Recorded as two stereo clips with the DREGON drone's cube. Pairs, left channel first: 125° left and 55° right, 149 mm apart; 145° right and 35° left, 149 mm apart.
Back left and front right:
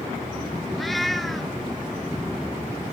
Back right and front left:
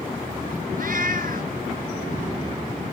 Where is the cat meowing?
35° left, 1.7 m.